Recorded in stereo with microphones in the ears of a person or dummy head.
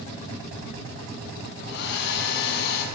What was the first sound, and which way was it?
A hair dryer, 55° left (ahead or behind).